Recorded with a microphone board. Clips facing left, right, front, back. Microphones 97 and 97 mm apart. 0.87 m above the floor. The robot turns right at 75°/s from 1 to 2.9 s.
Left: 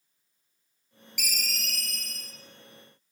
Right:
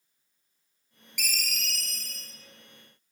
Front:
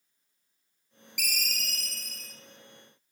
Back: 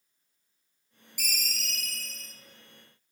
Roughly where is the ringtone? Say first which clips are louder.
Right 1 dB, front 2 dB; ahead.